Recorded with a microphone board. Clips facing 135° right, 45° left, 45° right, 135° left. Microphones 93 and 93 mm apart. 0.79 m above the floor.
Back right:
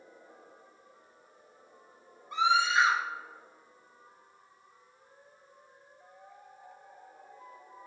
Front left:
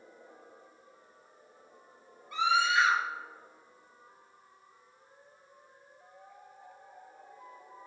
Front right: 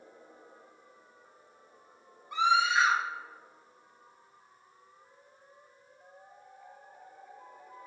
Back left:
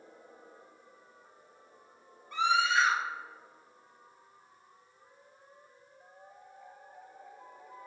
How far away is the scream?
About 1.0 m.